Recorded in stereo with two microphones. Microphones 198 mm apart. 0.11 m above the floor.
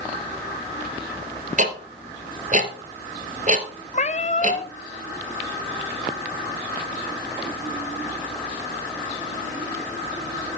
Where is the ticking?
40° right (ahead or behind), 1.4 m.